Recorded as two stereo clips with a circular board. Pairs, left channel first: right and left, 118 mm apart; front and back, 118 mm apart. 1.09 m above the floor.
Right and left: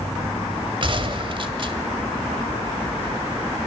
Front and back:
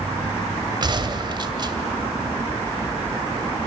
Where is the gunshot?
130° left, 1.9 m.